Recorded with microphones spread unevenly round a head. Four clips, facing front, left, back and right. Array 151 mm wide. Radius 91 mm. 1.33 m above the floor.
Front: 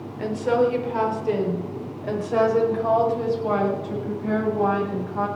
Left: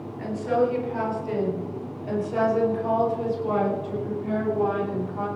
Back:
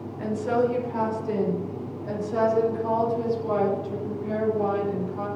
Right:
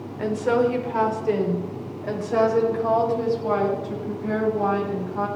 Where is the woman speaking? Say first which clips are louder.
Right 3 dB, front 3 dB; 65° right, 4.5 m; by 5.3 s 25° right, 8.5 m.